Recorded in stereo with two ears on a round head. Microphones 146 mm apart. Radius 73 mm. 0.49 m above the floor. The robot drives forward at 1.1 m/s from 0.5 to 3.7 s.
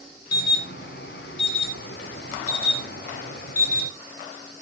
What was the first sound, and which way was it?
An alarm, 65° left (ahead or behind).